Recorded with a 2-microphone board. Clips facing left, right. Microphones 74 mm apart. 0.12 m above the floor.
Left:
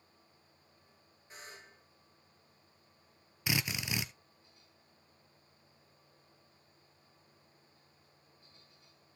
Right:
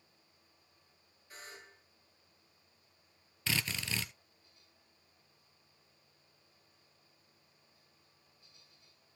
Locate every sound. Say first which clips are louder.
1.3 s a buzzer: even; 20° left (ahead or behind), 8 m
3.5 s a drill: left 1 dB; 15° left (ahead or behind), 0.9 m